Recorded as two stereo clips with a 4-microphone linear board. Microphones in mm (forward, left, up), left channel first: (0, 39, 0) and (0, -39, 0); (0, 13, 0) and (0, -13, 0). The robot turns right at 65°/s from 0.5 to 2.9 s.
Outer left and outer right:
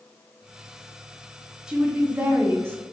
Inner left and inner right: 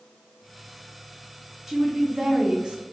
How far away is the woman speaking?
About 0.5 m.